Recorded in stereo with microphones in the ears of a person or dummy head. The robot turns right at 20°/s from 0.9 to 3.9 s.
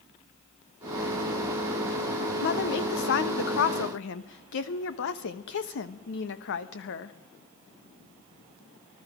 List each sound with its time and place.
2.4 s a woman speaking: 65° left (ahead or behind), 1.1 m; by 7.2 s 70° left (ahead or behind), 1.1 m